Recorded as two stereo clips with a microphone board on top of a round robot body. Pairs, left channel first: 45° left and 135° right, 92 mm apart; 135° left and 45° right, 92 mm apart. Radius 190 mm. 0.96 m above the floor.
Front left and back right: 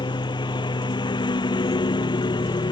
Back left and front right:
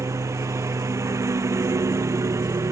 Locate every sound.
0.0 s a lawn mower: 10° left